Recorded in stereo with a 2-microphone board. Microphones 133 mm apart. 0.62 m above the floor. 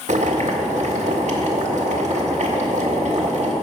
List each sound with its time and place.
0.1 s boiling: 60° right (ahead or behind), 1.6 m